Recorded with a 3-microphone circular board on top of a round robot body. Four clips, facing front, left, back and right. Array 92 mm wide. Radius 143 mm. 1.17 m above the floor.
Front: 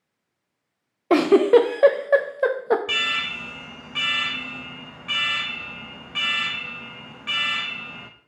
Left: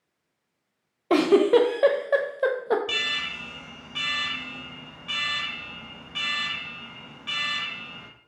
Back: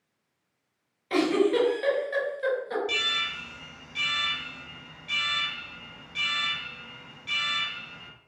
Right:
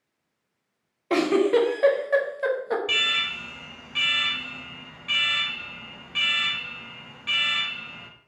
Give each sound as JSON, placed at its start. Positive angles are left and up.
{"t": 1.1, "sound": "a giggle", "azimuth_deg": 15, "distance_m": 0.8}
{"t": 2.9, "sound": "an alarm", "azimuth_deg": 5, "distance_m": 0.8}